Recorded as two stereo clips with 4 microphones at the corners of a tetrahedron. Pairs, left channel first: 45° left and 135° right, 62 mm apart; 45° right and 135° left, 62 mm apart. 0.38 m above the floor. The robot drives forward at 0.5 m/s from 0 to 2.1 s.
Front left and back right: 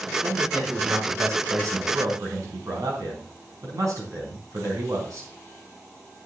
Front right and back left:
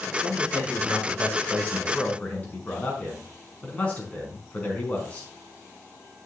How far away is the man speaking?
About 4 m.